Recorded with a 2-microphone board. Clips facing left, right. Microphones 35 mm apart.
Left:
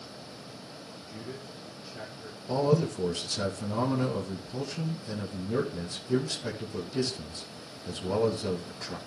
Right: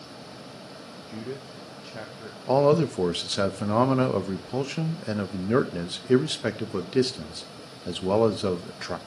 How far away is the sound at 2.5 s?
About 1.3 m.